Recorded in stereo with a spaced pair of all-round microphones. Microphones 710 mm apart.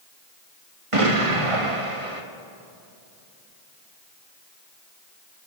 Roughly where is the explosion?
Right.